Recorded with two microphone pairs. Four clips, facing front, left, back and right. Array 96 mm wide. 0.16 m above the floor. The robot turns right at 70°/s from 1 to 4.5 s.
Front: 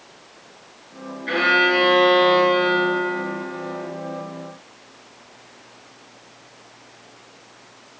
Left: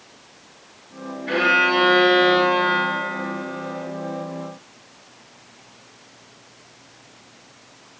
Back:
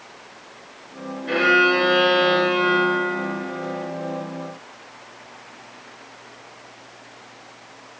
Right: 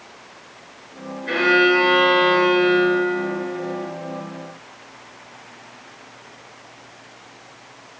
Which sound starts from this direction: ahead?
A violin, at 1.3 s.